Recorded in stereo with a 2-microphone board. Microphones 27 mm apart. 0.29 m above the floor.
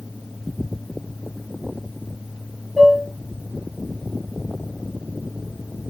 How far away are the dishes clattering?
About 4 m.